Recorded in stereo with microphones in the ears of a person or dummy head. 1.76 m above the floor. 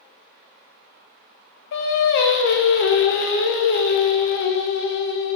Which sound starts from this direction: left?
Singing, at 1.7 s.